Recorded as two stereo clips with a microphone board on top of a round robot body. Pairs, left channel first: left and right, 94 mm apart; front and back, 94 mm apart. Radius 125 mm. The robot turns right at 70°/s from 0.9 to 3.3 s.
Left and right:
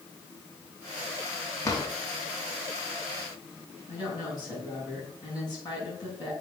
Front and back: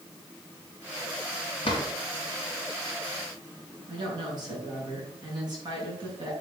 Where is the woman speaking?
140° left, 5 m.